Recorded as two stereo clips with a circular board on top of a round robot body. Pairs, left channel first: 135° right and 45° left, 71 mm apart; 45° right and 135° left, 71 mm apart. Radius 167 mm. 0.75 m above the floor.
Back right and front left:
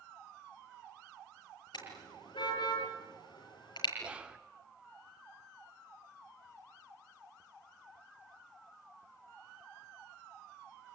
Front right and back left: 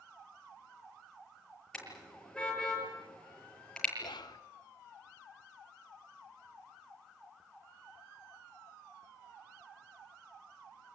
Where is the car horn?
125° right, 8 m.